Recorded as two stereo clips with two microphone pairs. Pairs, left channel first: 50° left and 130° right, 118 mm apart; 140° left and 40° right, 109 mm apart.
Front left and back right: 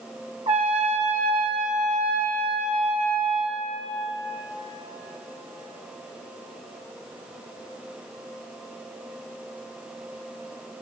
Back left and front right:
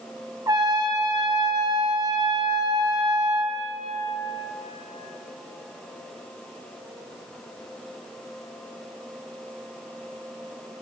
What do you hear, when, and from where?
0.5 s a trumpet: 95° right, 0.6 m